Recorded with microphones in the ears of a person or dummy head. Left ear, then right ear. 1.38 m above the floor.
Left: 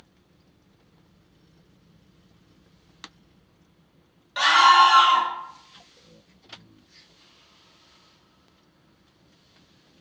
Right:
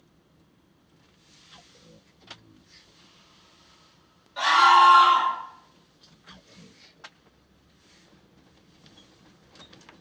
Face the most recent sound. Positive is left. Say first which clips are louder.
# left 1 dB
turn(degrees=55)  # may be behind; listen again after turning